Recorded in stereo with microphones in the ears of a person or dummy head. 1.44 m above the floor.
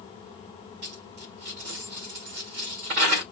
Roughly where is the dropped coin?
Right.